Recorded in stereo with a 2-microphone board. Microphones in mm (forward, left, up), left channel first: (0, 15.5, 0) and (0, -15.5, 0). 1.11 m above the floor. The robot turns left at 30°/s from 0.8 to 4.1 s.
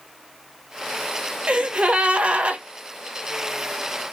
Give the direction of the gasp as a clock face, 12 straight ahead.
2 o'clock.